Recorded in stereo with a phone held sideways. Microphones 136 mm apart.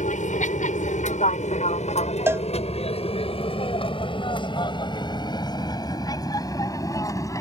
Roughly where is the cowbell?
Centre.